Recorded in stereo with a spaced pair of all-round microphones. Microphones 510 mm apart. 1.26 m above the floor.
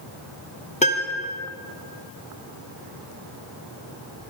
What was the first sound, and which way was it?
A piano, 15° left (ahead or behind).